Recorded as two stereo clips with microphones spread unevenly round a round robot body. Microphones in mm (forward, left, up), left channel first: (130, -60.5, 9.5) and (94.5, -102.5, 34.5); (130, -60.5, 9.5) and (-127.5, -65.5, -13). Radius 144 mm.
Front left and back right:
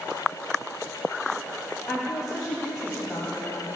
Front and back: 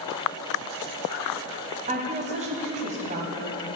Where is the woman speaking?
120° left, 2.5 m.